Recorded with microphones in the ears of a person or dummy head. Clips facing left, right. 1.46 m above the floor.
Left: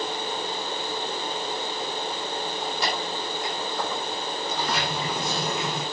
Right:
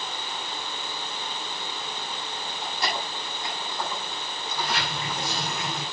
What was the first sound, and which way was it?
Keys jangling, 70° left (ahead or behind).